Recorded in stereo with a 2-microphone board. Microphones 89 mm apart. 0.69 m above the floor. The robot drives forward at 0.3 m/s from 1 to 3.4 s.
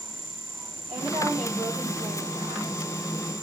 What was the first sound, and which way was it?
A woman speaking, 70° right (ahead or behind).